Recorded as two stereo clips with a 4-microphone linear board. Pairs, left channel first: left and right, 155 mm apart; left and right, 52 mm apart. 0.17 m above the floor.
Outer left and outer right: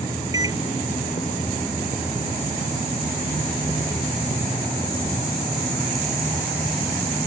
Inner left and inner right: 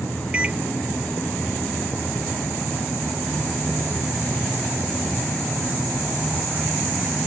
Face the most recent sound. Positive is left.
turn(degrees=-20)  # may be behind; listen again after turning